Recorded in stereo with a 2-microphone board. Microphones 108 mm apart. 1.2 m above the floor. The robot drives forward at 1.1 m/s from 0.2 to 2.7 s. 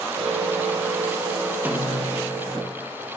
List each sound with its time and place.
1.6 s a snare drum: 15° right (ahead or behind), 1.0 m; by 2.2 s 10° right (ahead or behind), 1.6 m